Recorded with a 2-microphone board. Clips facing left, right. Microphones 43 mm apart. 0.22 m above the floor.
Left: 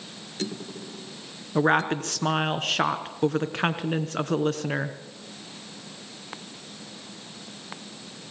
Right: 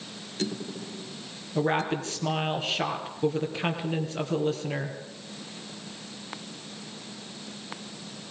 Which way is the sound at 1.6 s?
60° left (ahead or behind).